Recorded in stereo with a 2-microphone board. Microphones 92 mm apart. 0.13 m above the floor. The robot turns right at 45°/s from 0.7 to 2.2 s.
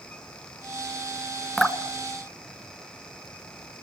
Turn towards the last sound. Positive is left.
turn(degrees=15)  # may be behind; listen again after turning